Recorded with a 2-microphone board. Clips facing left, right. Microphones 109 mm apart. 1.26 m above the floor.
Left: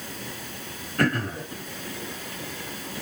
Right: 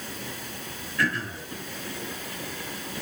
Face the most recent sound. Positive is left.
turn(degrees=55)  # may be behind; listen again after turning